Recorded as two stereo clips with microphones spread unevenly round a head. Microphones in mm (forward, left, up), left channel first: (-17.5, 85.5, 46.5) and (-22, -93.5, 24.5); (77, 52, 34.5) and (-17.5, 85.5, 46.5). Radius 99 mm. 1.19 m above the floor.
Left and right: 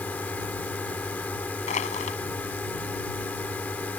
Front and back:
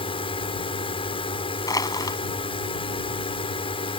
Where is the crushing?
35° left.